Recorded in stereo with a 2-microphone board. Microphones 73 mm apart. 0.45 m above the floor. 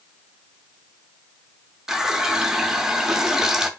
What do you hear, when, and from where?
1.9 s a running tap: 5° right (ahead or behind), 0.5 m